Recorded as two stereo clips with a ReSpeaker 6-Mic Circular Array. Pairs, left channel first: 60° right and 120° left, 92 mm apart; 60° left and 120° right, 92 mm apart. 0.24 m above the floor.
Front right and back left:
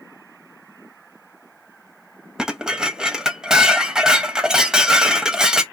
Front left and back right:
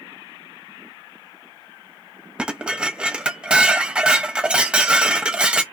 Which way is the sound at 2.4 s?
170° right.